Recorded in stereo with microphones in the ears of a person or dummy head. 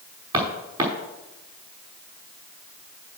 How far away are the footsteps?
About 6 m.